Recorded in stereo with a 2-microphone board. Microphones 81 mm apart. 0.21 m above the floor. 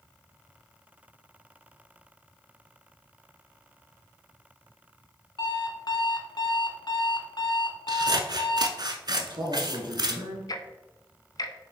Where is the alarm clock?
60° left (ahead or behind), 1.0 m.